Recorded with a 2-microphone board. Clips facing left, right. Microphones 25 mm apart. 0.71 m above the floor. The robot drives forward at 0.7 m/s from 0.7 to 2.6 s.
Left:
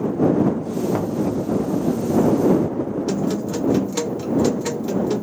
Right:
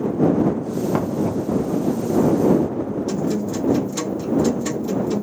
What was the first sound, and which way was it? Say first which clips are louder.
Knocking: right 1 dB; 20° right (ahead or behind).